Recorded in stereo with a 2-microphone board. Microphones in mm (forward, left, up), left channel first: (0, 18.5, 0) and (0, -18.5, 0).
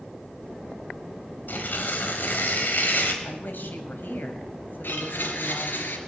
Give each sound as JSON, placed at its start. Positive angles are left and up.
{"t": 1.5, "sound": "tearing paper", "side_deg": 55, "distance_m": 3.0}
{"t": 3.2, "sound": "a woman speaking", "side_deg": 60, "distance_m": 3.0}
{"t": 4.8, "sound": "a blender", "side_deg": 70, "distance_m": 3.0}